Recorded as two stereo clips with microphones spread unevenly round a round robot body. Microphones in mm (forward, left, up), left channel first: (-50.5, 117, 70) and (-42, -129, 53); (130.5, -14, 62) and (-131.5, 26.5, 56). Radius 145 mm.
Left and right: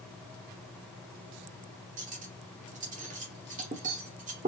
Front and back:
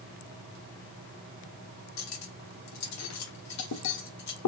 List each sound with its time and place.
2.0 s cutlery clinking: 30° right, 1.1 m